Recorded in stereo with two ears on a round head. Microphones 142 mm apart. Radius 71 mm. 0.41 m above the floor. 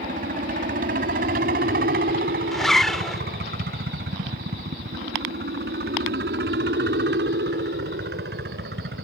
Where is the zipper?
Centre (ahead or behind).